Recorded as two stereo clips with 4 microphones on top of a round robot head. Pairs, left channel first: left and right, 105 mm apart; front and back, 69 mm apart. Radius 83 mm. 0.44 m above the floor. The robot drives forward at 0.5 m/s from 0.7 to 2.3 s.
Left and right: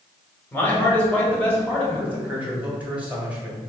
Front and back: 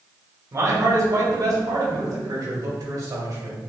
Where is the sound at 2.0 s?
165° right, 1.8 m.